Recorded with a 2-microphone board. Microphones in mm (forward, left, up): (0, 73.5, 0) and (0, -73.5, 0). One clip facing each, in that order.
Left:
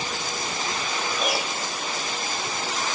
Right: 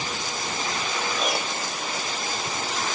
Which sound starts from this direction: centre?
A piano, at 1.2 s.